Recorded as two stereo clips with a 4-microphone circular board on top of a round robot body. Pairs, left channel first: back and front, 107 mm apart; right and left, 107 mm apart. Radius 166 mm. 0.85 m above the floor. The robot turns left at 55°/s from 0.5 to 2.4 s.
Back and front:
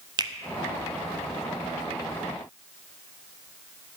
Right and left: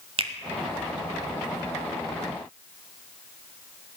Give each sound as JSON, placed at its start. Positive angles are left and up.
{"t": 0.2, "sound": "a finger snap", "azimuth_deg": 50, "distance_m": 1.4}